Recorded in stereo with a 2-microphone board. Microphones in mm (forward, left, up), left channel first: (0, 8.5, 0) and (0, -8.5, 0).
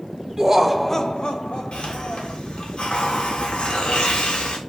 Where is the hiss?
60° left (ahead or behind), 2.5 m.